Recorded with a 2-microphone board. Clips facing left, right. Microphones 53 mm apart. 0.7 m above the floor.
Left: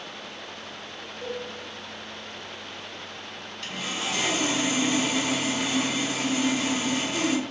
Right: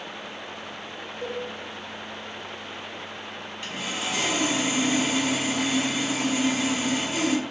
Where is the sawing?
10° right (ahead or behind), 1.0 m.